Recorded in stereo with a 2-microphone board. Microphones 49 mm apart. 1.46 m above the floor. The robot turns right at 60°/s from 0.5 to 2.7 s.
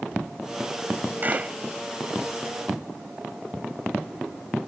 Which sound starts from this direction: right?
A clap, at 1.2 s.